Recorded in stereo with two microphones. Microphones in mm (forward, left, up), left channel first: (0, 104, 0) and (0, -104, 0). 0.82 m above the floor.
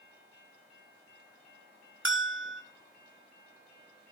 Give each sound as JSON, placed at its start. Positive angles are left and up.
{"t": 2.0, "sound": "a bell", "side_deg": -70, "distance_m": 1.6}